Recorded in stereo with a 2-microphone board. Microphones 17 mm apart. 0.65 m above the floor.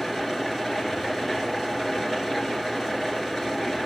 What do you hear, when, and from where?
0.0 s an engine running: 10° left (ahead or behind), 3 m